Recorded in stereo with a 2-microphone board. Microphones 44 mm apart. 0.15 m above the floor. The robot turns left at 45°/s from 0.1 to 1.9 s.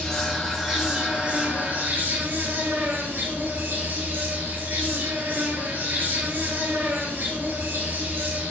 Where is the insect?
10° left, 4.5 m; by 8.5 s 70° right, 4.5 m.